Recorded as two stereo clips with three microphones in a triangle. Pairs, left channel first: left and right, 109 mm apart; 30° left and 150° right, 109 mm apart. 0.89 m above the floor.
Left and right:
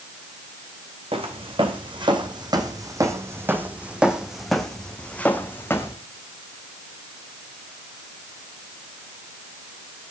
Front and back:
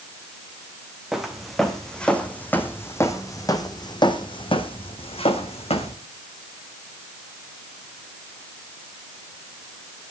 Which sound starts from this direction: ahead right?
Footsteps, at 1.1 s.